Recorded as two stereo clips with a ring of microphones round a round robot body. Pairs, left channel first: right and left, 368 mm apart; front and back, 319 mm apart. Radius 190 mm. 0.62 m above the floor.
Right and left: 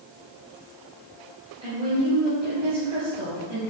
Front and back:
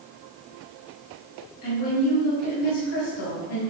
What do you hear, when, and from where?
1.6 s a woman speaking: 15° left, 4 m